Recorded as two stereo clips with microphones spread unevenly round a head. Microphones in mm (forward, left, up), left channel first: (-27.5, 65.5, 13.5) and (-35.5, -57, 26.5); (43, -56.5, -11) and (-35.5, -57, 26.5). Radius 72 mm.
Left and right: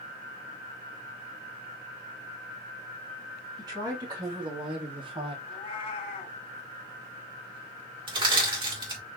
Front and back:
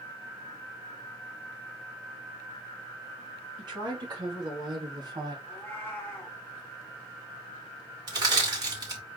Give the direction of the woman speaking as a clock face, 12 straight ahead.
5 o'clock.